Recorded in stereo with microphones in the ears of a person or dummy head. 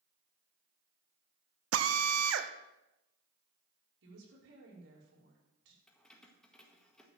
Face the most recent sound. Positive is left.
turn(degrees=5)  # may be behind; listen again after turning